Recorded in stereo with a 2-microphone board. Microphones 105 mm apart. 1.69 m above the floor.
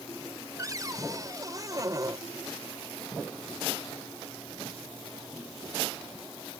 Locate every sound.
0.6 s a cupboard door: 35° right (ahead or behind)